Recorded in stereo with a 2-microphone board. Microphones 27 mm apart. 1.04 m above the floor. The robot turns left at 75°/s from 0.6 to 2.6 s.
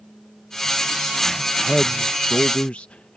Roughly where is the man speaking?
Behind.